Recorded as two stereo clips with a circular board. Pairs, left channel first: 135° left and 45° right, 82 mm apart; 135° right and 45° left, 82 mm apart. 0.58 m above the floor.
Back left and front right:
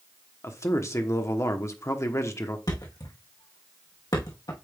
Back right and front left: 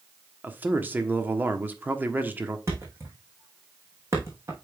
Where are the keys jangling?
No keys jangling in this recording.